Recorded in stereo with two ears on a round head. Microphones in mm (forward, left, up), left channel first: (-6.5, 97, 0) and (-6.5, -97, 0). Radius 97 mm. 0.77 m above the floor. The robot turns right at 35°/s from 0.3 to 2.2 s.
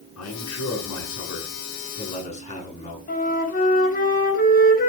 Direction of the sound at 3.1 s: 40° left (ahead or behind).